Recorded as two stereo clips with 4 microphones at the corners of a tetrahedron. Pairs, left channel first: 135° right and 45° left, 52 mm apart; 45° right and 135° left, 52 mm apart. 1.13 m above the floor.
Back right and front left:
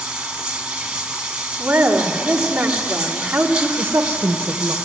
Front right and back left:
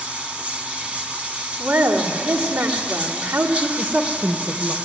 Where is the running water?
100° left, 1.1 m.